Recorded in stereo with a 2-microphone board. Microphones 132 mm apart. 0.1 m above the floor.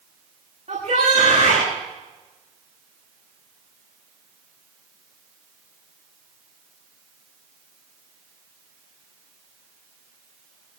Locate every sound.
0.7 s a shout: 70° right (ahead or behind), 9.5 m